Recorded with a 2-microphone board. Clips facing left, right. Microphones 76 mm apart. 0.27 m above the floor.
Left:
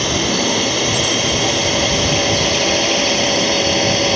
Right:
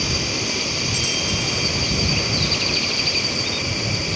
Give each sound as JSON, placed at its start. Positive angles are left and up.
{"t": 0.0, "sound": "a drone", "side_deg": 60}